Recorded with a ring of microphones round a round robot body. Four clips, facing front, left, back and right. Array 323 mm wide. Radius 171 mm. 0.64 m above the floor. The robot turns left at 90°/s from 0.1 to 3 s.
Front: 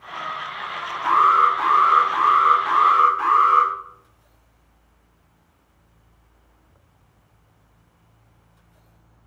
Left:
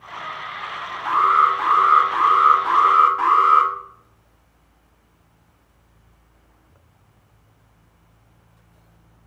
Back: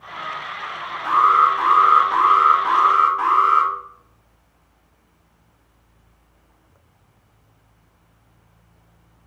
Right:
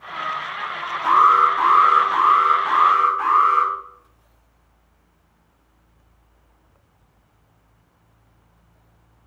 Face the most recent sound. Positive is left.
turn(degrees=125)